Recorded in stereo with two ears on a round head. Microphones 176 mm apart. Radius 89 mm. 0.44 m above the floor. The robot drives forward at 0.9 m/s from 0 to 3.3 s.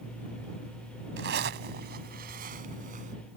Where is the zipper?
60° right (ahead or behind); by 3.1 s 40° right (ahead or behind).